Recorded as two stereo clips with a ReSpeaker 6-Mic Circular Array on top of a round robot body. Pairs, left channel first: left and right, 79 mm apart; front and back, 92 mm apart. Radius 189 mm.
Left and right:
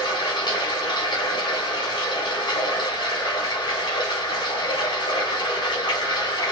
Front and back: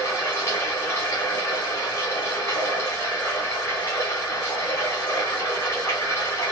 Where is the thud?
No thud in this recording.